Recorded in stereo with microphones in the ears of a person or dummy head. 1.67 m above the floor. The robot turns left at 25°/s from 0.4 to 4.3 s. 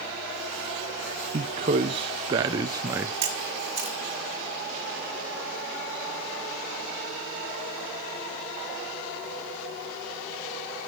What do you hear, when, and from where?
1.3 s a man speaking: 20° right (ahead or behind), 0.6 m; by 3.1 s 10° right (ahead or behind), 0.6 m
3.2 s a camera shutter: 25° right (ahead or behind), 2 m; by 4.0 s 5° right (ahead or behind), 2 m